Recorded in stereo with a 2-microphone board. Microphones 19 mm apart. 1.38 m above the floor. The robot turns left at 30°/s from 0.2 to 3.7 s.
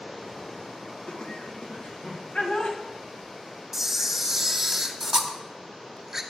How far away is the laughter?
About 1.9 m.